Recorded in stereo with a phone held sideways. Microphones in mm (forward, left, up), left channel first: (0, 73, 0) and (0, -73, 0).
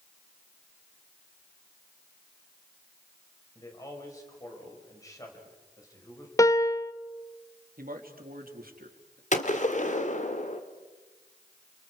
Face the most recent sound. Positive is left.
turn(degrees=55)  # may be behind; listen again after turning